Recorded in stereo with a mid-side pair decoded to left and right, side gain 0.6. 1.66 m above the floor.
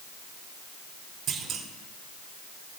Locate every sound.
1.3 s a clunk: 55° right, 3.5 m